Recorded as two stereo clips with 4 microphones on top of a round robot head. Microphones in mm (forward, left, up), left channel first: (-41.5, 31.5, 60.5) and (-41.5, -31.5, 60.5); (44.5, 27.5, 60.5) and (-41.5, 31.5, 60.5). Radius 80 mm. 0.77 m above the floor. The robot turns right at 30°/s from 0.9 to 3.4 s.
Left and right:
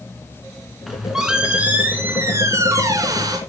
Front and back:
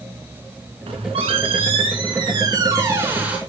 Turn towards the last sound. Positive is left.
turn(degrees=-105)